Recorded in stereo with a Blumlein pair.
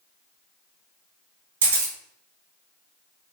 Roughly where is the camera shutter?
Ahead right.